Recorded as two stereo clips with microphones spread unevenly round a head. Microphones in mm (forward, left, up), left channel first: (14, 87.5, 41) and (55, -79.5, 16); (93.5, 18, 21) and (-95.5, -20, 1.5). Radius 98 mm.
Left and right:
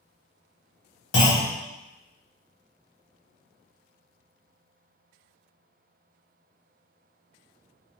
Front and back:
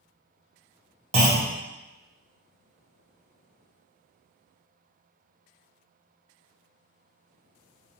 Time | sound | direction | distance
1.1 | a clunk | 130° left | 1.0 m